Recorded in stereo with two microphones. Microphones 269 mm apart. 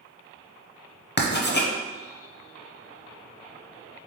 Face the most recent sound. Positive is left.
turn(degrees=40)  # may be behind; listen again after turning